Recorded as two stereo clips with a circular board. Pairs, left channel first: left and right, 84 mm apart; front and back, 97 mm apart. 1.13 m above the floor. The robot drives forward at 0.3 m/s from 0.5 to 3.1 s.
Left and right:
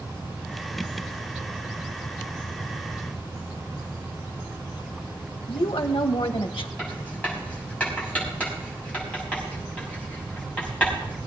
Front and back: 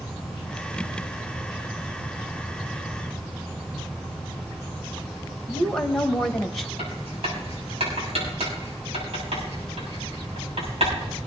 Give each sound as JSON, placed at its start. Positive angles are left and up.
{"t": 5.5, "sound": "a woman speaking", "azimuth_deg": 85, "distance_m": 1.3}
{"t": 6.8, "sound": "writing", "azimuth_deg": 165, "distance_m": 7.0}